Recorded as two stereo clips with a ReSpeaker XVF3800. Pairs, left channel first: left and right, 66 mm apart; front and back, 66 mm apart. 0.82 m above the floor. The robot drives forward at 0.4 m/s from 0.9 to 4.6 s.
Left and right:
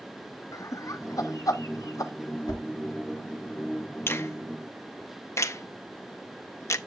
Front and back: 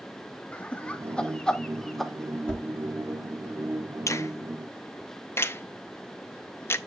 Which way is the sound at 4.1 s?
35° left.